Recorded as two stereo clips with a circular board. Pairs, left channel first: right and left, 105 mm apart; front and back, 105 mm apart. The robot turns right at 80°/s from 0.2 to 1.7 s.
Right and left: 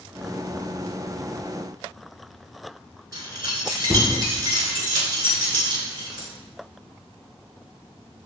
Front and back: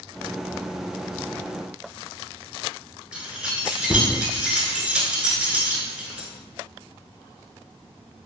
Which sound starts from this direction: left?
Keys jangling, at 3.1 s.